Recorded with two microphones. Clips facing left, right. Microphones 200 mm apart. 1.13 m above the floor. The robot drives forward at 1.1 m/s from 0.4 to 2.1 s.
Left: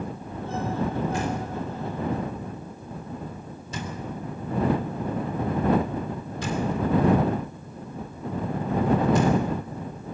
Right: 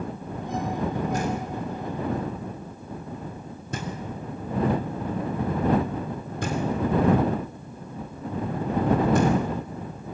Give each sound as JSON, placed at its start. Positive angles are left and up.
{"t": 1.1, "sound": "knocking", "side_deg": -40, "distance_m": 4.0}